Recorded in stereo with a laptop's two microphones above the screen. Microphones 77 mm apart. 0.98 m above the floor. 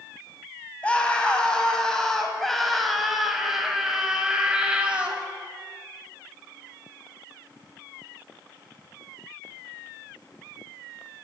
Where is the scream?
15° left (ahead or behind), 6.5 m; by 5.2 s 15° right (ahead or behind), 6 m.